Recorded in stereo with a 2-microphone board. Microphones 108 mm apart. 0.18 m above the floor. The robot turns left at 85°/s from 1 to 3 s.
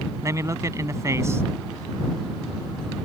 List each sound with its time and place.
0.2 s a man speaking: 30° right (ahead or behind); by 1.4 s 25° right (ahead or behind)